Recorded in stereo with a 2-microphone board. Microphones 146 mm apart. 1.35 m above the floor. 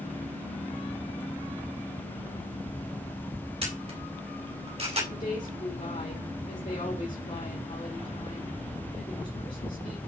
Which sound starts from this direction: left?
A woman speaking, at 5.1 s.